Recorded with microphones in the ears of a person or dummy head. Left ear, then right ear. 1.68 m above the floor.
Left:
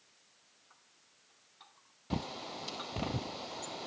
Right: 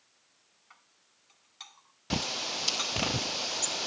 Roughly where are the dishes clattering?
Right.